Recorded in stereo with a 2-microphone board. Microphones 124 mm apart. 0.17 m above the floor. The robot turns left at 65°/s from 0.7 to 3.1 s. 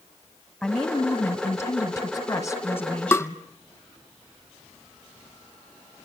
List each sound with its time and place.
0.6 s a woman speaking: centre (ahead or behind), 1.5 m; by 3.4 s 10° left (ahead or behind), 1.5 m
3.1 s tapping: 20° left (ahead or behind), 0.9 m